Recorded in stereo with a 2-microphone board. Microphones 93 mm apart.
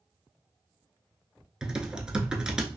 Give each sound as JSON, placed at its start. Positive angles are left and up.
{"t": 1.6, "sound": "typing on a keyboard", "side_deg": -10, "distance_m": 0.7}